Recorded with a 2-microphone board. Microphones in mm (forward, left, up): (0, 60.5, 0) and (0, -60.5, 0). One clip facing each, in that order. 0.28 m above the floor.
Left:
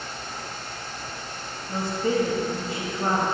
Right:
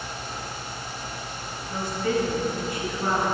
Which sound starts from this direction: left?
A woman speaking, at 1.7 s.